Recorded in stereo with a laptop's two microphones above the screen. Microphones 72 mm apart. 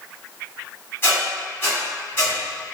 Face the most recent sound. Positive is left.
turn(degrees=30)  # may be behind; listen again after turning